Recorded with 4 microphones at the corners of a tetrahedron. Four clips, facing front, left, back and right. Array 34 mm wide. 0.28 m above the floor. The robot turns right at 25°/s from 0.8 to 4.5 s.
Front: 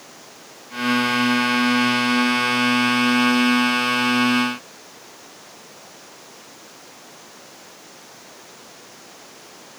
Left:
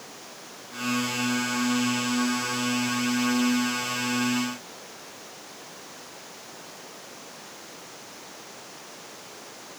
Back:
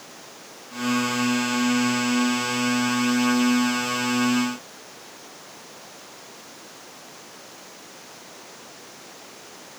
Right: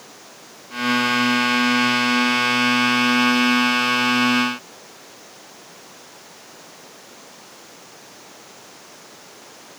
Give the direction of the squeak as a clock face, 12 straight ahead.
I don't hear a squeak.